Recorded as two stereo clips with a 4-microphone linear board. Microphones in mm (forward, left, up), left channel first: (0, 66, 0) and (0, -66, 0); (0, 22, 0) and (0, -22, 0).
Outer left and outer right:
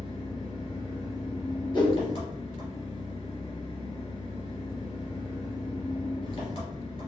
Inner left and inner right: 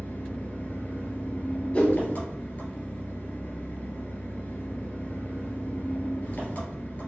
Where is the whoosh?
35° left (ahead or behind), 1.3 m.